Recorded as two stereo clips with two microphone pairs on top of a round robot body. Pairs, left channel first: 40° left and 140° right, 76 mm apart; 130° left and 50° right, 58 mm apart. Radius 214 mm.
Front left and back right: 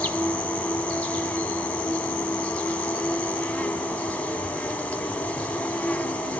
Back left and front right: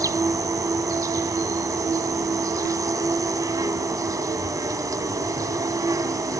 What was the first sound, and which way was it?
An insect, 40° right.